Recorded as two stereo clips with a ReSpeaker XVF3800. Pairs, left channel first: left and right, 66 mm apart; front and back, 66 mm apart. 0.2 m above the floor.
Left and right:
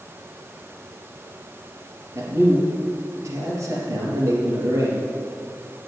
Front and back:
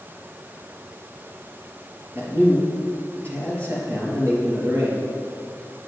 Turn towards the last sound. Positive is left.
turn(degrees=-130)